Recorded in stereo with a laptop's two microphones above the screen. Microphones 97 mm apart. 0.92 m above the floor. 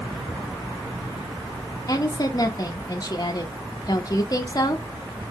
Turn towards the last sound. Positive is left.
turn(degrees=40)  # may be behind; listen again after turning